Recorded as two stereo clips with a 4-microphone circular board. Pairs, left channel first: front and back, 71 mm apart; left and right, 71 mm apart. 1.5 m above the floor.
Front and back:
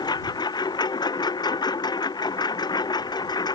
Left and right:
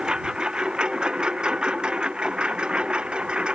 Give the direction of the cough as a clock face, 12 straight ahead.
I don't hear a cough.